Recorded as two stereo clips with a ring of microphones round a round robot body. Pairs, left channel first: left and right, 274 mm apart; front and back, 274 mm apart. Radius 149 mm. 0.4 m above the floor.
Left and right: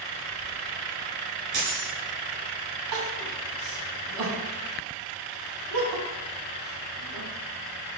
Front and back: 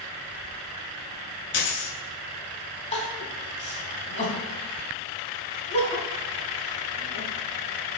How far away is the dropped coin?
About 1.7 m.